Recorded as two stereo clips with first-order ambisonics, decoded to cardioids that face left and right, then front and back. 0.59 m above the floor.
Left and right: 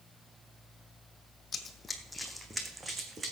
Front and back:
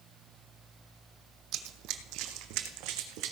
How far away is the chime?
No chime in this recording.